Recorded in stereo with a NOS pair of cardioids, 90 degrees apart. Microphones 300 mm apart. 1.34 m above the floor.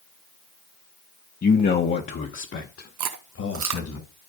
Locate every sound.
1.4 s a man speaking: 25° left, 1.0 m; by 4.0 s 50° left, 2 m
3.0 s chewing: 70° right, 1.2 m